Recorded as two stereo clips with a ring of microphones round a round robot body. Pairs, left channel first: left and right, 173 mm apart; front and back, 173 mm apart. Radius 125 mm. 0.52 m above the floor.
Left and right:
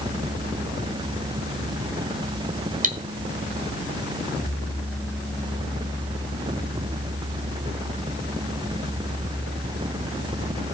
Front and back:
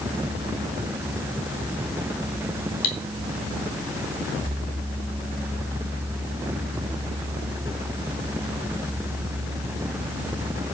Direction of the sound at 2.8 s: 50° right.